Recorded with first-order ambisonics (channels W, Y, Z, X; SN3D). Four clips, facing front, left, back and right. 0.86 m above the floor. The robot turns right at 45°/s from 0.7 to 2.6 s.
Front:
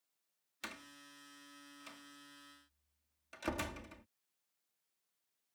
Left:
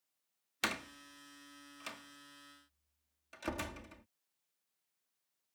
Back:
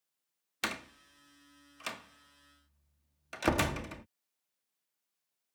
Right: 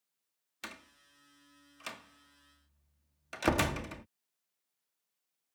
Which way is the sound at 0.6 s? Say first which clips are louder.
Left 10 dB, back 11 dB; 140° left.